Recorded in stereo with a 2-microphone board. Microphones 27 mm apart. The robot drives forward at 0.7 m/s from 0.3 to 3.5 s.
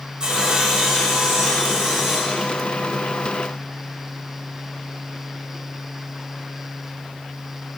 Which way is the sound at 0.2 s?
35° right (ahead or behind).